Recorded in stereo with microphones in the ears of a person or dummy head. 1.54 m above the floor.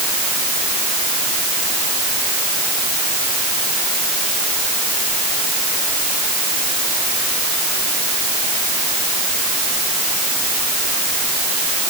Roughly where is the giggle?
No giggle in this recording.